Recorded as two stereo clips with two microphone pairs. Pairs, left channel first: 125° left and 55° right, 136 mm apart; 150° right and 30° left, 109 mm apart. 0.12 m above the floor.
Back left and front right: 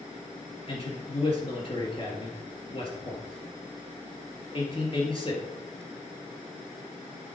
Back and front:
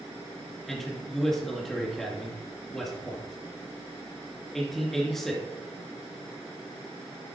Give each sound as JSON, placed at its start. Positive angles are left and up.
{"t": 0.7, "sound": "a man speaking", "azimuth_deg": 125, "distance_m": 2.0}